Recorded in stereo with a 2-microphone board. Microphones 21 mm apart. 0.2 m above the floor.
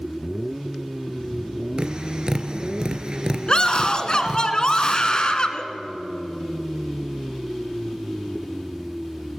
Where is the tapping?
40° right (ahead or behind), 1.6 m.